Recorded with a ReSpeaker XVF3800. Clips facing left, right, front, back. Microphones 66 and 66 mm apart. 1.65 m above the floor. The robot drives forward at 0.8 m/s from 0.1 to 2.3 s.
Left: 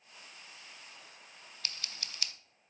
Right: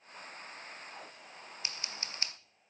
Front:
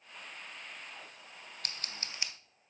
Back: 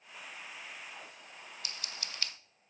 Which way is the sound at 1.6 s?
20° right.